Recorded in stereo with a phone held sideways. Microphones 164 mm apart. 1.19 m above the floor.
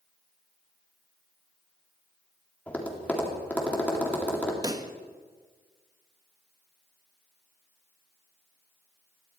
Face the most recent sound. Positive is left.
turn(degrees=-25)  # may be behind; listen again after turning